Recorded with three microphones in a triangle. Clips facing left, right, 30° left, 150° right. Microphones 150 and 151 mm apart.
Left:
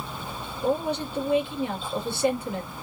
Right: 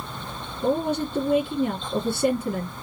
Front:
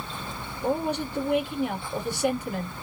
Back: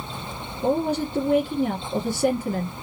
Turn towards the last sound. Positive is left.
turn(degrees=-120)